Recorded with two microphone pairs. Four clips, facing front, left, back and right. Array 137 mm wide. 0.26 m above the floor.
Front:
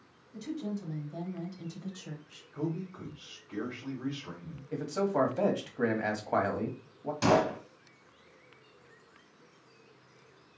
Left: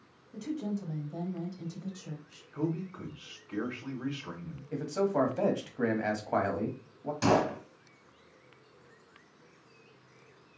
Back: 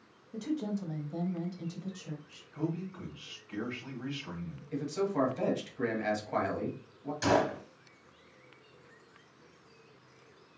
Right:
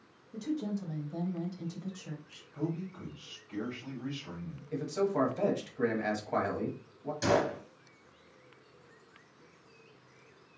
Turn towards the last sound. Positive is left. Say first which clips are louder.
# left 2 dB, front 2 dB
turn(degrees=50)